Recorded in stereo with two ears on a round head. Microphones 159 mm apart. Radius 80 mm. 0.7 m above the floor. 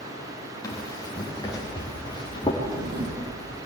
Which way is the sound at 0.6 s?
20° left (ahead or behind).